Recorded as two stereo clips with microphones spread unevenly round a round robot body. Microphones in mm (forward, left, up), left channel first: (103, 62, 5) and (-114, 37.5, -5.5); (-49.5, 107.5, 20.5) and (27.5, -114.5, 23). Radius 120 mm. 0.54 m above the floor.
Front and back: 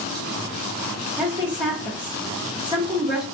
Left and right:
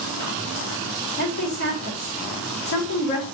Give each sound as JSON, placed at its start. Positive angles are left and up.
{"t": 1.2, "sound": "a woman speaking", "azimuth_deg": 120, "distance_m": 1.6}